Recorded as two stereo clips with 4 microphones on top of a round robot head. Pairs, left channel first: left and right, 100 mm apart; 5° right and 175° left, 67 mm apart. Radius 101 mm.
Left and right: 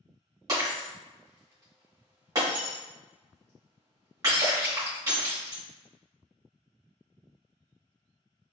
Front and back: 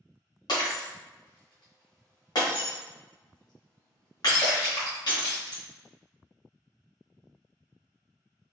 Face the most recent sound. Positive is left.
turn(degrees=-30)